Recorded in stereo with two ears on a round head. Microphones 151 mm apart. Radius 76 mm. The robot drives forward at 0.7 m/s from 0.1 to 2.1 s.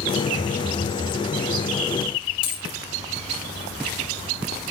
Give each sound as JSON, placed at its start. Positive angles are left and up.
{"t": 0.4, "sound": "a phone buzzing", "side_deg": 5, "distance_m": 1.5}
{"t": 2.4, "sound": "a dropped coin", "side_deg": 30, "distance_m": 4.0}